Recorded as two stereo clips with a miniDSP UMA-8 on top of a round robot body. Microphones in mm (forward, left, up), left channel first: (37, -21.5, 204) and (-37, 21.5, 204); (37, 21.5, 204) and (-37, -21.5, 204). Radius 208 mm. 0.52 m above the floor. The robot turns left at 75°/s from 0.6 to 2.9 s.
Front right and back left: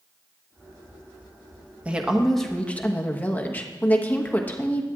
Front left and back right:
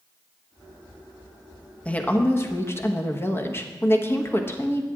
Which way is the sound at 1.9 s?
90° left.